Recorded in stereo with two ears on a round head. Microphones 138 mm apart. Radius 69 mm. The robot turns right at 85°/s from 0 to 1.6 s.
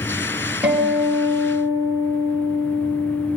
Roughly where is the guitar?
Ahead.